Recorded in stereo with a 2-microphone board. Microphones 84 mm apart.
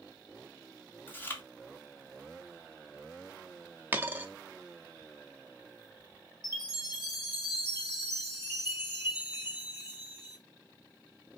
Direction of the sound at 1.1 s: 25° left (ahead or behind).